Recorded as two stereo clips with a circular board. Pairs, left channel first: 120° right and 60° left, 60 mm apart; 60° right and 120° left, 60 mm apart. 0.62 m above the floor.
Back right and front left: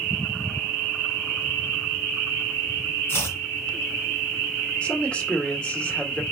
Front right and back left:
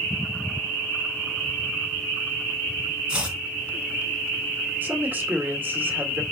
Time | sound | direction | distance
3.1 | chopping | 165° right | 2.5 m
4.8 | a man speaking | 175° left | 2 m